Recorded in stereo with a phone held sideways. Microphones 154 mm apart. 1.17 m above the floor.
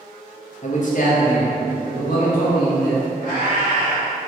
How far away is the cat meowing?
About 1.3 m.